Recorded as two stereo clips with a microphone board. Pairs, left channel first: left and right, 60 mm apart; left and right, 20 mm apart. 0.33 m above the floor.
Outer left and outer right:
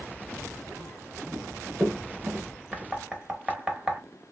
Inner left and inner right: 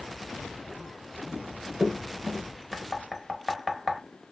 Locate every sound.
1.3 s running footsteps: 30° right (ahead or behind), 1.4 m; by 2.5 s 45° right (ahead or behind), 1.8 m
2.7 s knocking: 15° right (ahead or behind), 0.6 m